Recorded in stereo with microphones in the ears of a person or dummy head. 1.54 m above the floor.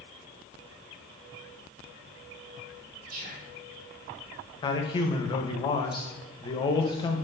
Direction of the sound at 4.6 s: 30° left (ahead or behind).